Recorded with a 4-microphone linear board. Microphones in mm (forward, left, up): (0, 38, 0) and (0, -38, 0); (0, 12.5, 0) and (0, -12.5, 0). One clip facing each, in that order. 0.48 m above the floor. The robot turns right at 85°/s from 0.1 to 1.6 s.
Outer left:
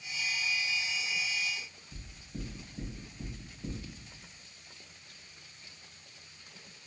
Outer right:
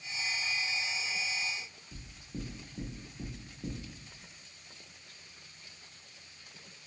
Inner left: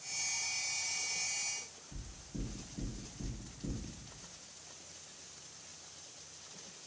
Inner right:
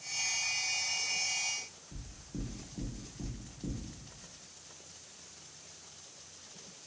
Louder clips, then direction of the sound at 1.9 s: Outer right 2 dB, inner right 1 dB; 35° right (ahead or behind).